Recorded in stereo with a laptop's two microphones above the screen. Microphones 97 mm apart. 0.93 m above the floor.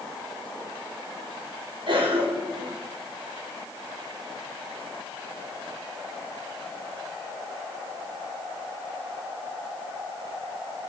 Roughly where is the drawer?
I don't hear a drawer.